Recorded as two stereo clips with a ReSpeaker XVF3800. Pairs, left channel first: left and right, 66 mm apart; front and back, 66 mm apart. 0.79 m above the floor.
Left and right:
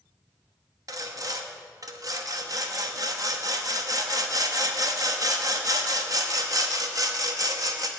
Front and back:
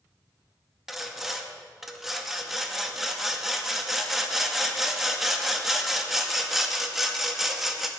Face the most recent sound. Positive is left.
turn(degrees=-95)